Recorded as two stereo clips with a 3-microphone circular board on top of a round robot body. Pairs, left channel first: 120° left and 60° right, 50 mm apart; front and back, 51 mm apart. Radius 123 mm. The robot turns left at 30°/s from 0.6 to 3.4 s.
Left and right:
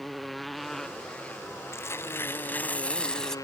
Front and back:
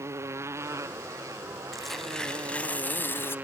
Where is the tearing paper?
90° left; by 3.4 s 40° left.